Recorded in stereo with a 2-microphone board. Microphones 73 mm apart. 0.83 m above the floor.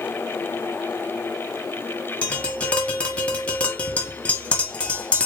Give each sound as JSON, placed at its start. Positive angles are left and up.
{"t": 2.2, "sound": "tapping", "side_deg": 15, "distance_m": 1.1}